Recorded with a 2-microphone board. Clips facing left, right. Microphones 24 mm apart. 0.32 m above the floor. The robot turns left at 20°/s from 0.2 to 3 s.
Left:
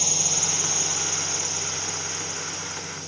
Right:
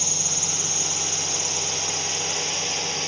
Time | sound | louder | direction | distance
0.0 | a drone | left 1 dB | 5° left (ahead or behind) | ?